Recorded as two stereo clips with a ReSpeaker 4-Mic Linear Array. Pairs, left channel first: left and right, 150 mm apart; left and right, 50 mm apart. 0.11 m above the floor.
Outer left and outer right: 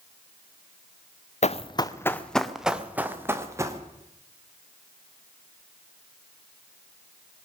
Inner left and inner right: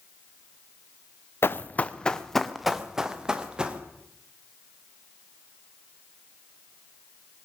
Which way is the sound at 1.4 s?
50° left (ahead or behind).